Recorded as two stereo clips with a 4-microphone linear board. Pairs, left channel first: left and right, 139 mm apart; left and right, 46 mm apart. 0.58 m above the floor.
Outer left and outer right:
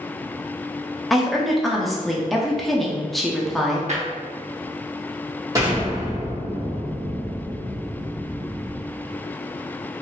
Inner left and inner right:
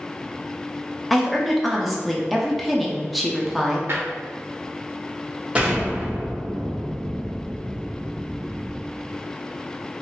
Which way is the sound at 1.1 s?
Centre (ahead or behind).